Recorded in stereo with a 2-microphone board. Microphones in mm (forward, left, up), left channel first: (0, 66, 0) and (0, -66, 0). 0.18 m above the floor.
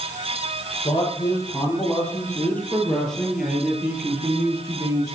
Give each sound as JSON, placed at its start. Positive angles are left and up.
{"t": 0.8, "sound": "a man speaking", "side_deg": 30, "distance_m": 6.5}